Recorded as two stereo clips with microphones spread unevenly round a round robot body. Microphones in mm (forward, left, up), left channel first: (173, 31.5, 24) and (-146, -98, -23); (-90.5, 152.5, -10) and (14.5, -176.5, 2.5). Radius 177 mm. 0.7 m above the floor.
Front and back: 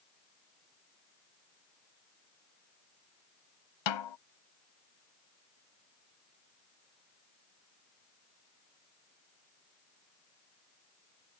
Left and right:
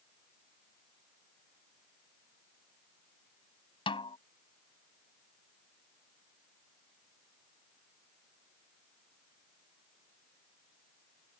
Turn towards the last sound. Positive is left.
turn(degrees=30)